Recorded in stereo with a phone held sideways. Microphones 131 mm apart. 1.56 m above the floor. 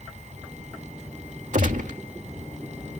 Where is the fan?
60° right (ahead or behind).